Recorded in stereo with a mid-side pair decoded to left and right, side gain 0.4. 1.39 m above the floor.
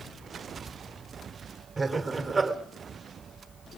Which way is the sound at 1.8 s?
30° right.